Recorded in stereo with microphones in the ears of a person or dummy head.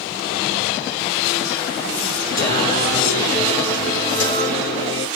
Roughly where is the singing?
Left.